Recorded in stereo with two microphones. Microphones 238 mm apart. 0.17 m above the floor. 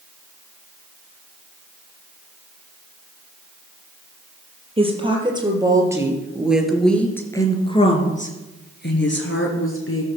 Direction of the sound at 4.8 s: 25° right (ahead or behind).